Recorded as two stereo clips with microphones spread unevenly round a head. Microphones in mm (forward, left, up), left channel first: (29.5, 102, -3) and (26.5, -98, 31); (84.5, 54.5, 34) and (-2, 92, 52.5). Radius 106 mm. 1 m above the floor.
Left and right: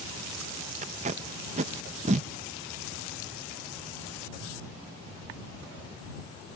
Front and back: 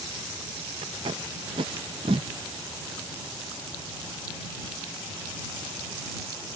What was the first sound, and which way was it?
Tape being pulled, 155° right.